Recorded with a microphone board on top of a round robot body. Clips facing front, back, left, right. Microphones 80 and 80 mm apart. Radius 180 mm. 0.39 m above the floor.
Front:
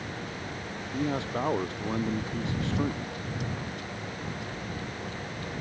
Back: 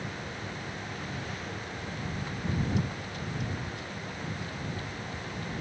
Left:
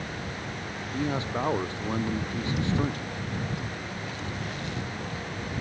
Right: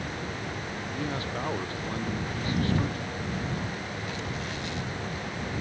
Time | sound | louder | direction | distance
0.9 | a man speaking | front 9 dB, left 5 dB | 20° left | ?